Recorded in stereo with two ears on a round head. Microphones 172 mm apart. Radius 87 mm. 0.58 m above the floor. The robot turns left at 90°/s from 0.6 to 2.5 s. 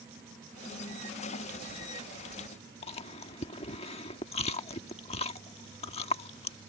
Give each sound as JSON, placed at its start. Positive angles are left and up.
{"t": 2.8, "sound": "chewing", "side_deg": 30}